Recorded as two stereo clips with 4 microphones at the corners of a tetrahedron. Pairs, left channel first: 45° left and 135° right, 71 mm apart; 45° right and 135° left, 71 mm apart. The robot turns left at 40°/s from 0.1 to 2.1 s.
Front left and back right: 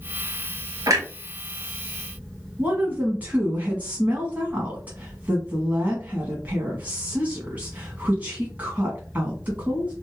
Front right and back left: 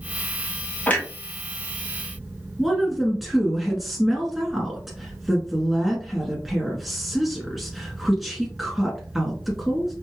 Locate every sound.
0.9 s a clunk: 110° right, 1.4 m; by 1.1 s 120° right, 1.4 m
2.6 s a woman speaking: 140° right, 1.1 m